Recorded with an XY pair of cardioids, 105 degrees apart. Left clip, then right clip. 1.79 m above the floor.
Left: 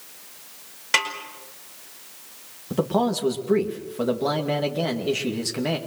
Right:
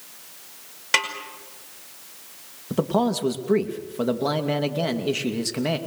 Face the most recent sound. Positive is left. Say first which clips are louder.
# even
turn(degrees=-10)